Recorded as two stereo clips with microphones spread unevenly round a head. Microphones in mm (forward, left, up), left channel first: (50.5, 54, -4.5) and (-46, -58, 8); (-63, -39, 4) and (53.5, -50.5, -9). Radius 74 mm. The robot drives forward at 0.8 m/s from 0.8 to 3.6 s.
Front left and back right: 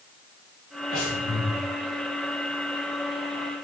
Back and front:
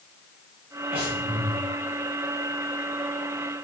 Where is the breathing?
50° left, 4 m; by 1.6 s 55° left, 3.5 m.